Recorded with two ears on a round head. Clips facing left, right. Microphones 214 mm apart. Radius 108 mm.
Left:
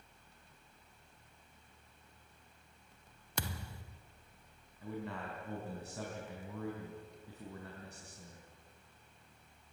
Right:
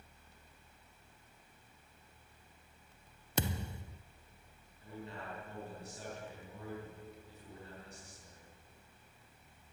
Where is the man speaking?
50° left (ahead or behind), 3.5 m.